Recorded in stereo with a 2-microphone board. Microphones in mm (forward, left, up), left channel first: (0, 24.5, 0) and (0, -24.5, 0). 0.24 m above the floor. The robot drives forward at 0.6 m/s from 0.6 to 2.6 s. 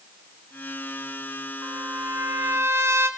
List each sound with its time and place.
1.6 s a trumpet: 55° right (ahead or behind), 2 m; by 3.1 s 60° right (ahead or behind), 2 m